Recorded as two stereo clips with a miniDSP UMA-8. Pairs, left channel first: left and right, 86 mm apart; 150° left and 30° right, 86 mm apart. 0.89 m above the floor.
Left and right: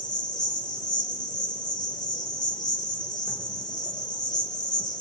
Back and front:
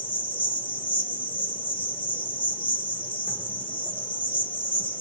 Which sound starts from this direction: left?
An insect, at 0.0 s.